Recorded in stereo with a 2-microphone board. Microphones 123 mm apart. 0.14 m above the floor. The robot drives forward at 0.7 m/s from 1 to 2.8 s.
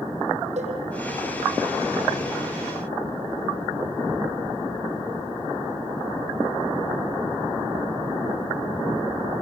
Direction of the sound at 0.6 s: 65° right (ahead or behind).